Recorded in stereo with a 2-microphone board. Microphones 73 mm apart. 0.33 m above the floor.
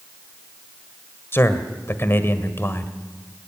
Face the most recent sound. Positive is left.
turn(degrees=35)  # may be behind; listen again after turning